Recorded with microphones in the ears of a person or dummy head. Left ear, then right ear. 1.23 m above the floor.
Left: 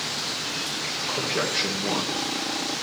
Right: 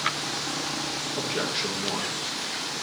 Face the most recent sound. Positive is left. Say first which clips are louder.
# left 3 dB
turn(degrees=5)  # may be behind; listen again after turning